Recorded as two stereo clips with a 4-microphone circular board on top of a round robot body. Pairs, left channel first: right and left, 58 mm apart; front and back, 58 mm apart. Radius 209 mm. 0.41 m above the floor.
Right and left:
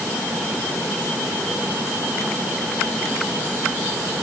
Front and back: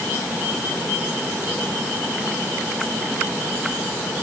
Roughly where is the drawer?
I don't hear a drawer.